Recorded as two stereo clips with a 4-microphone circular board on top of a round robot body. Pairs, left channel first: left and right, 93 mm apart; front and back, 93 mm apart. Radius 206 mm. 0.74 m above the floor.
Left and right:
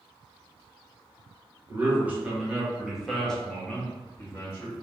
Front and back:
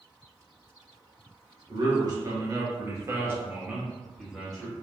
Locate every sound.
1.7 s a man speaking: 155° right, 1.5 m; by 4.7 s 70° left, 1.2 m